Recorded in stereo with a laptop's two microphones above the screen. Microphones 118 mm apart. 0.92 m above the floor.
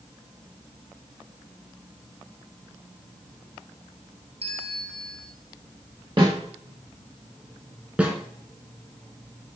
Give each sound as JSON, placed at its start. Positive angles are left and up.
{"t": 4.4, "sound": "a bell", "side_deg": -55, "distance_m": 0.9}
{"t": 6.2, "sound": "a snare drum", "side_deg": -45, "distance_m": 1.8}
{"t": 8.0, "sound": "a snare drum", "side_deg": -10, "distance_m": 2.5}